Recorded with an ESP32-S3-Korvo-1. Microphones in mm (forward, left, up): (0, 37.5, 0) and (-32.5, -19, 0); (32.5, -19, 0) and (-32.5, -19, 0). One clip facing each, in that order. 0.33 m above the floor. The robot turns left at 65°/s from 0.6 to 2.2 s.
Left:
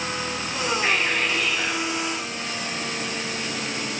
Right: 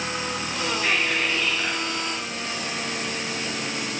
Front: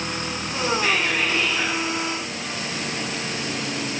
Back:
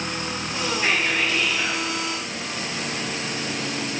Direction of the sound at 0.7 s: 115° left.